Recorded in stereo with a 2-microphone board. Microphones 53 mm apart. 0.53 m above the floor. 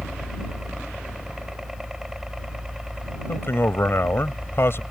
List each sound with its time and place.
0.0 s a helicopter: 5° right (ahead or behind)
3.3 s a man speaking: 50° left (ahead or behind)